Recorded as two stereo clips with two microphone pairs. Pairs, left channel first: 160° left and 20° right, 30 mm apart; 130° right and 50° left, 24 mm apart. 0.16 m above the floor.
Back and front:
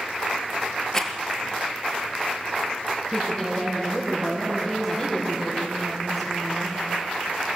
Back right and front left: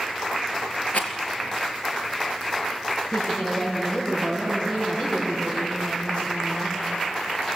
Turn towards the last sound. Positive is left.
turn(degrees=-110)